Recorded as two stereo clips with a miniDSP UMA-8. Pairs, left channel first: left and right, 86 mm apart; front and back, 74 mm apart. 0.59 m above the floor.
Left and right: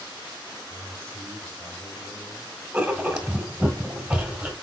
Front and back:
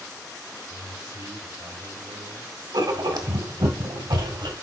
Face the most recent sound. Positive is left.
turn(degrees=-170)